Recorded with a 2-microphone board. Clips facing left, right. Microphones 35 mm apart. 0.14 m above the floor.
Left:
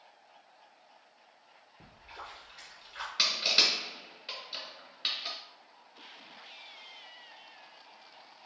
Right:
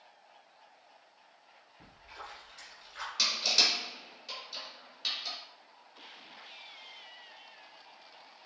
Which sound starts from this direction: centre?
A splash, at 1.8 s.